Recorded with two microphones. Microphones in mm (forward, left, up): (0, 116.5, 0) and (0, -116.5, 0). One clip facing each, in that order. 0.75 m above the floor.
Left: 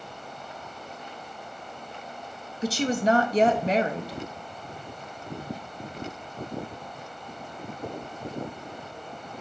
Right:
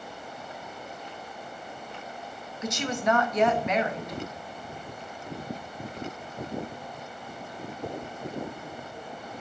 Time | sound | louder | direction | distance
2.6 | a woman speaking | left 4 dB | 30° left (ahead or behind) | 0.8 m